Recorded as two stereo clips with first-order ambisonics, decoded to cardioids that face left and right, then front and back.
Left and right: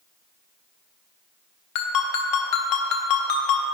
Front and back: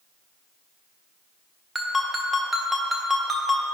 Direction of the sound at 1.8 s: 100° left.